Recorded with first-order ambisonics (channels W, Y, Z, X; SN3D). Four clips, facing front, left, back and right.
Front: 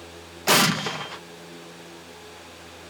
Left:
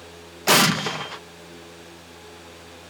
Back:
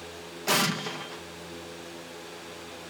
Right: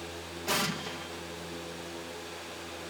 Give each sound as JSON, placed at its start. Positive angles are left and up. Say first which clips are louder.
{"t": 0.5, "sound": "an explosion", "louder": "left 13 dB, front 6 dB", "azimuth_deg": 60}